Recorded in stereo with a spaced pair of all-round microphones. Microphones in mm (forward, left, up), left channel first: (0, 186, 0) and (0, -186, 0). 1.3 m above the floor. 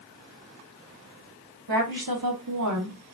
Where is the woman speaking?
70° right (ahead or behind), 1.2 m; by 3.0 s 40° right (ahead or behind), 0.9 m.